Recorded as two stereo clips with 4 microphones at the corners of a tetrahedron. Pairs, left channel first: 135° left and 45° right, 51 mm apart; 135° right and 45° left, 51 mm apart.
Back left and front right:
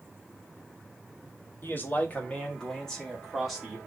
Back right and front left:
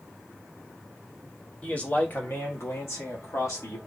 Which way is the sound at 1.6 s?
165° left.